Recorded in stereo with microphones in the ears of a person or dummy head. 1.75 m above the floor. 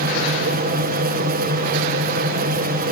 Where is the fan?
55° right (ahead or behind), 2.5 m.